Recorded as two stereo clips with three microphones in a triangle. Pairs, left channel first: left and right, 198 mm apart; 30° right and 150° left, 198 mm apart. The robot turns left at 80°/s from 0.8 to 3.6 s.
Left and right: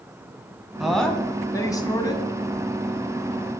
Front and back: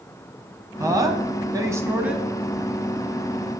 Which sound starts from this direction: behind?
A woman speaking, at 0.8 s.